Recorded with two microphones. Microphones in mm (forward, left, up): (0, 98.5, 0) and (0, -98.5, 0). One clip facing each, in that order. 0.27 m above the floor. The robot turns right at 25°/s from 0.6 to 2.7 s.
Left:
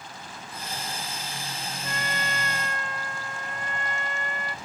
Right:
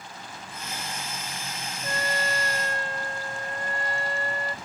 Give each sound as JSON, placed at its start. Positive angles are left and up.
{"t": 1.8, "sound": "a trumpet", "side_deg": -40}